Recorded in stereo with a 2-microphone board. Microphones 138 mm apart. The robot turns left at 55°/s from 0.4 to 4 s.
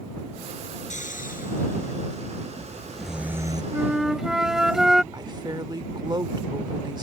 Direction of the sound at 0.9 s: 60° left (ahead or behind).